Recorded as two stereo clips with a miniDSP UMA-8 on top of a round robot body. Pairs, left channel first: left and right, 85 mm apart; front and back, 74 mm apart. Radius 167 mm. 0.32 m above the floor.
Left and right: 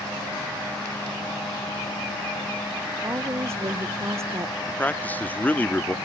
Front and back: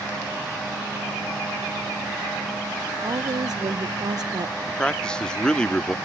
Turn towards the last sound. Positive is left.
turn(degrees=60)